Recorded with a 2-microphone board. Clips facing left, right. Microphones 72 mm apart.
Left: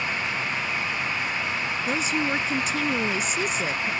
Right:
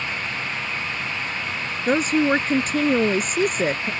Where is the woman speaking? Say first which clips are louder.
Right 9 dB; 45° right (ahead or behind).